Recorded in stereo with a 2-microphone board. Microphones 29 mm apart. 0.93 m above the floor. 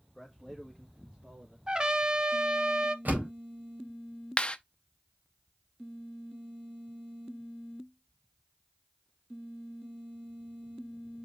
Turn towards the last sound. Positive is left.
turn(degrees=30)  # may be behind; listen again after turning